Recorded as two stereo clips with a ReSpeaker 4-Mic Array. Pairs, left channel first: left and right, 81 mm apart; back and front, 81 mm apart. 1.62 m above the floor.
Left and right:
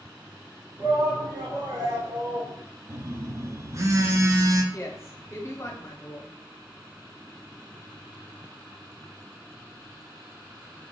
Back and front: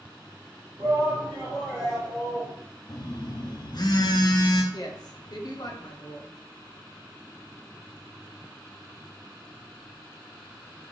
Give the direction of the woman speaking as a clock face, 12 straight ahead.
7 o'clock.